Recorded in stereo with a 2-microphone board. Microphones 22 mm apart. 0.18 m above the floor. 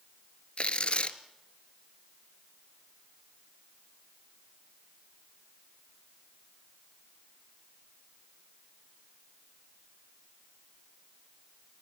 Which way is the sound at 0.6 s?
60° left (ahead or behind).